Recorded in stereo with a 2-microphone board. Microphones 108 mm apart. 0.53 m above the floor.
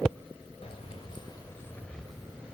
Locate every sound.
0.6 s keys jangling: 65° left (ahead or behind), 2.0 m; by 2.5 s 10° right (ahead or behind), 2.5 m